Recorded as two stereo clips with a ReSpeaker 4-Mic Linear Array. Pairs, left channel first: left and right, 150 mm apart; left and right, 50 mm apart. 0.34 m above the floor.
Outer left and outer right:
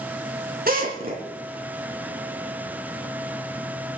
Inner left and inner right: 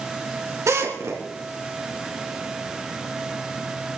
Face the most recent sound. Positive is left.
turn(degrees=-65)  # may be behind; listen again after turning